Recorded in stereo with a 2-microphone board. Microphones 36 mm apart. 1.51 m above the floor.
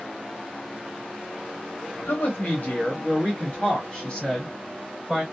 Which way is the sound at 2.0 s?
65° left (ahead or behind).